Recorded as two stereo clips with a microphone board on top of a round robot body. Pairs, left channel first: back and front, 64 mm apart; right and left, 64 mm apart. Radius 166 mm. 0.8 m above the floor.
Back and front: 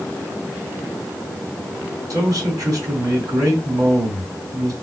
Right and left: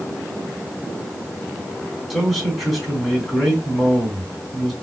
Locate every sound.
2.1 s a man speaking: 5° left, 2.5 m